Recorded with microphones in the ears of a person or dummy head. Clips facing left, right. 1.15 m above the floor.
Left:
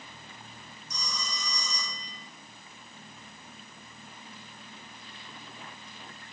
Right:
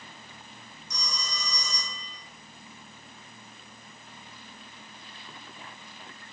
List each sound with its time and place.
0.9 s a phone ringing: 55° right (ahead or behind), 4 m